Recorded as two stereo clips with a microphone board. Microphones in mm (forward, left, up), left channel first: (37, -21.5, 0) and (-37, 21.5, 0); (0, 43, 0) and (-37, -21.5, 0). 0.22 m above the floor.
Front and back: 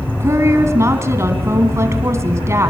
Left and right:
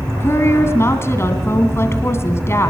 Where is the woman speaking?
100° left, 2.5 m.